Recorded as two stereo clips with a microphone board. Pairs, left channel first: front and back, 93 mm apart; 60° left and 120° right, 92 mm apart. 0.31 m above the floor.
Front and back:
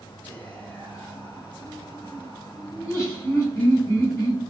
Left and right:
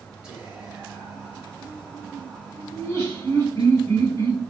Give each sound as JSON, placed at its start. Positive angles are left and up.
{"t": 0.2, "sound": "whispering", "azimuth_deg": -50, "distance_m": 1.0}
{"t": 2.7, "sound": "laughter", "azimuth_deg": 30, "distance_m": 1.5}